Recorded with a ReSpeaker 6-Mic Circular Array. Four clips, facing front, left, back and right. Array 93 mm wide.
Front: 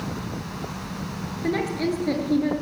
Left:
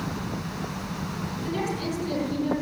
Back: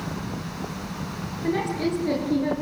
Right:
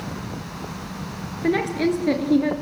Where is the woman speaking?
80° right, 7 m; by 2.5 s 90° right, 7.5 m.